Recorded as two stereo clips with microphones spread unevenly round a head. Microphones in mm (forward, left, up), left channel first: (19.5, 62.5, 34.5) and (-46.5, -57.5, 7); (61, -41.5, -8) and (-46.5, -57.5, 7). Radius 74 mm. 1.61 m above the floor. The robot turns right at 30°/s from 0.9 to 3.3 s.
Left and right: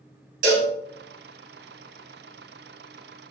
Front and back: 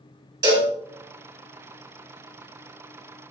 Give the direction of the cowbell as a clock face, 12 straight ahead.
4 o'clock.